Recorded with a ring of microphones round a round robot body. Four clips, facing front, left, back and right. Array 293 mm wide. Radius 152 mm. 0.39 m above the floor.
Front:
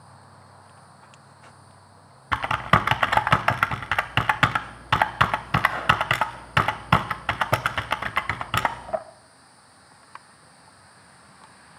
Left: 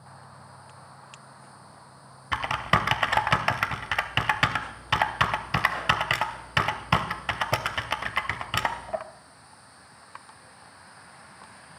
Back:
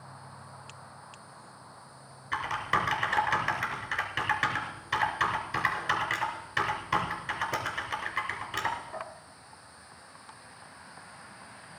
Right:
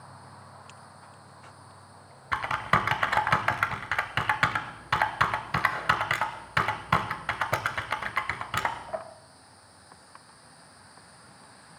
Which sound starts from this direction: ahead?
Typing on a keyboard, at 2.3 s.